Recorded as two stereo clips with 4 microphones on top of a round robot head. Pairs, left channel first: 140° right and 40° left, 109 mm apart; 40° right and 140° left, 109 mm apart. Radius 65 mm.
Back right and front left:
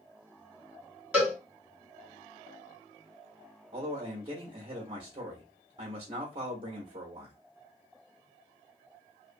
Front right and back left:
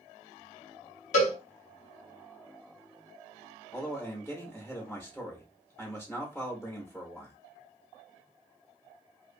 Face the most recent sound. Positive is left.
turn(degrees=35)